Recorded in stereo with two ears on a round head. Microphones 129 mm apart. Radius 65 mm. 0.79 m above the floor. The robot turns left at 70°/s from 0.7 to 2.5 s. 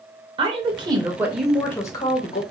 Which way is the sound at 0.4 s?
125° right.